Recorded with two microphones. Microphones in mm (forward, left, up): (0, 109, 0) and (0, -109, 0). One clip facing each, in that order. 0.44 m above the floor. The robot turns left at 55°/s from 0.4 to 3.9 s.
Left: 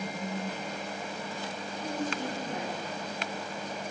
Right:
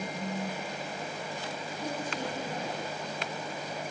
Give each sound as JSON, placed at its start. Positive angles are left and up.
{"t": 1.8, "sound": "a woman speaking", "azimuth_deg": -75, "distance_m": 4.0}